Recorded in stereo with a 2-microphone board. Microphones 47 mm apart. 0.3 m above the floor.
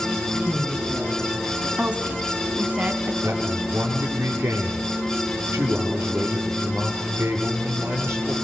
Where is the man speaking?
80° right, 7 m.